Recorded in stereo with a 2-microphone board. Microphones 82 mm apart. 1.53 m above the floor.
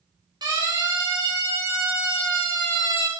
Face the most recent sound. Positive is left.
turn(degrees=-65)  # may be behind; listen again after turning